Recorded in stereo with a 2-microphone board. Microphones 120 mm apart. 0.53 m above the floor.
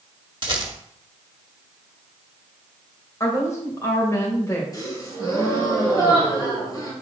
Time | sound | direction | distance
0.4 | a rattle | 40° right (ahead or behind) | 1.1 m
3.2 | a woman speaking | 25° left (ahead or behind) | 2.5 m
4.7 | a gasp | 35° left (ahead or behind) | 3 m